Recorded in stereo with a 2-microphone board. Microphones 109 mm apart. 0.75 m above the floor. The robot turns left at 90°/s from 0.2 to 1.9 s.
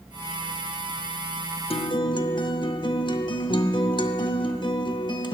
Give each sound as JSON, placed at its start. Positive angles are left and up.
{"t": 1.7, "sound": "a guitar", "side_deg": 60, "distance_m": 0.6}